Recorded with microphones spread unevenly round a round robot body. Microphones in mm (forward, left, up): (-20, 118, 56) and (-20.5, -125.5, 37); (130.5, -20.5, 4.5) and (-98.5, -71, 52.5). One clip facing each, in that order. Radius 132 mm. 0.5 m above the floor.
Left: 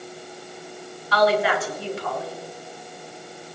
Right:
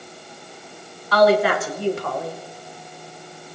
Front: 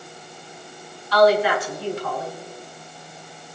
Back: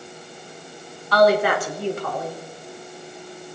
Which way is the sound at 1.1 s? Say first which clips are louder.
Right 4 dB, even; 125° right.